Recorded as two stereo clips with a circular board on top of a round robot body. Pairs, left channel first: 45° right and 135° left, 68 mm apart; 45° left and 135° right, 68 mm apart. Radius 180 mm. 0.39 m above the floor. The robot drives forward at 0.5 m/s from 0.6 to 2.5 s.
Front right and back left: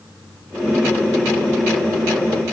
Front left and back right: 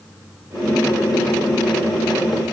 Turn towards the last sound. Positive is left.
No sound to turn to.